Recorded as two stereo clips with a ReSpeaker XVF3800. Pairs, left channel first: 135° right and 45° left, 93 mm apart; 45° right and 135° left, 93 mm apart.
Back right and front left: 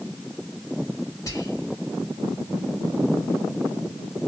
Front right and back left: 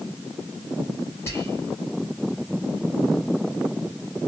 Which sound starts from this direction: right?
Whispering, at 1.3 s.